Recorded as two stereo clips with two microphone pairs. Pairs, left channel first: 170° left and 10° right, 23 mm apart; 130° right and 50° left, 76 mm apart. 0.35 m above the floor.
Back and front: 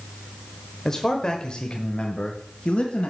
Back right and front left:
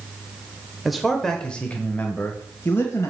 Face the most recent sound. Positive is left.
turn(degrees=-175)